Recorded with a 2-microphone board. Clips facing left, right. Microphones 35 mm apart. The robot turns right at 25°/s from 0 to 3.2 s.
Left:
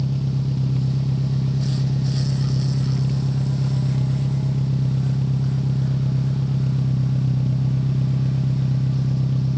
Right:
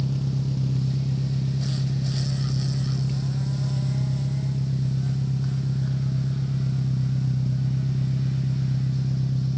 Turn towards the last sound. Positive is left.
turn(degrees=95)